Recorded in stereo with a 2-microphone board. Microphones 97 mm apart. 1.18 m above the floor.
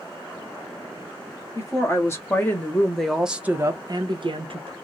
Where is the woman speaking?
30° left (ahead or behind), 1.4 m; by 4.7 s 75° right (ahead or behind), 0.8 m.